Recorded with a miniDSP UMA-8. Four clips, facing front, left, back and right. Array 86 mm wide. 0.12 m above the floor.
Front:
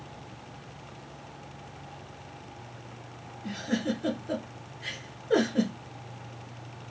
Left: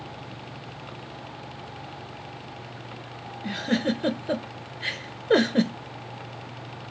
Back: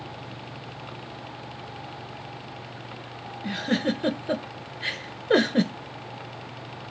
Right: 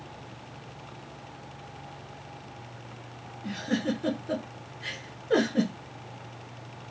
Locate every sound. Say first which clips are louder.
3.4 s a giggle: left 4 dB, back 4 dB; 140° left, 0.6 m